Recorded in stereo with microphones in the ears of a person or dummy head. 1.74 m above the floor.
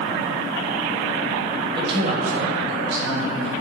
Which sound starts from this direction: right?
A man speaking, at 1.8 s.